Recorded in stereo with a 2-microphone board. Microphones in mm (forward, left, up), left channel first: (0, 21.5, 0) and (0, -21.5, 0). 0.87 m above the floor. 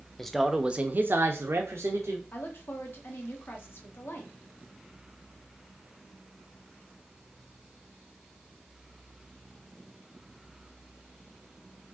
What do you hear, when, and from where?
0.2 s a man speaking: 10° left (ahead or behind), 0.7 m; by 2.2 s 80° right, 1.3 m
2.3 s a woman speaking: 55° left (ahead or behind), 1.3 m